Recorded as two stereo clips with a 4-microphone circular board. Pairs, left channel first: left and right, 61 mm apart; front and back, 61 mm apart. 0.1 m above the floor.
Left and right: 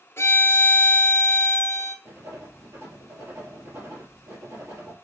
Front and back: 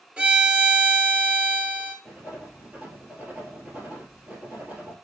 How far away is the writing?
About 2.5 m.